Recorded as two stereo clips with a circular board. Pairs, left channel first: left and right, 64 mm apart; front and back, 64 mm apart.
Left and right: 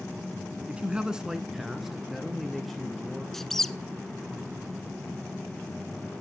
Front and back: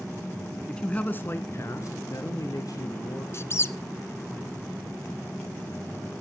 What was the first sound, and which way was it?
A man speaking, 60° right.